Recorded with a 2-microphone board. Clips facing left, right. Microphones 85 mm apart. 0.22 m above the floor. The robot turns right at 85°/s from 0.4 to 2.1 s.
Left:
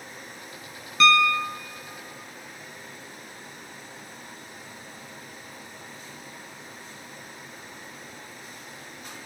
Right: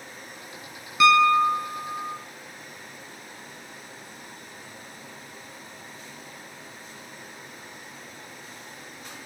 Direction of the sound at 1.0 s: 170° right.